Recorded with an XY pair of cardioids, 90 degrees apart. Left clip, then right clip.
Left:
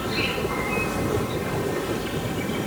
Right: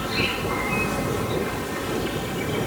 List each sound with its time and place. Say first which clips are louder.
0.0 s an insect: right 1 dB; 20° right